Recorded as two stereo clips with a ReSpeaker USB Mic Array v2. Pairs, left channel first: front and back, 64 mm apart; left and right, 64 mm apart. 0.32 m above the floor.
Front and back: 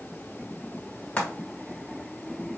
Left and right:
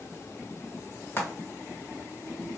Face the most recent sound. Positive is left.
turn(degrees=60)